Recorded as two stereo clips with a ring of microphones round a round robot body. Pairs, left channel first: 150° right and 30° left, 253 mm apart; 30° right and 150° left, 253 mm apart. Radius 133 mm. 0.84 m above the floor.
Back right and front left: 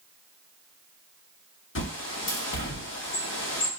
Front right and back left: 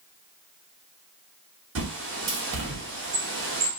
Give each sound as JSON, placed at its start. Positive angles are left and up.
{"t": 1.8, "sound": "a bird", "azimuth_deg": 180, "distance_m": 1.0}